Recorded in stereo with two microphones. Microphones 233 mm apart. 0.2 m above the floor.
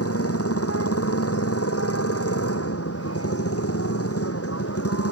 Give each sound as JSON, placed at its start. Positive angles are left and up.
{"t": 0.0, "sound": "a motorcycle", "side_deg": 85}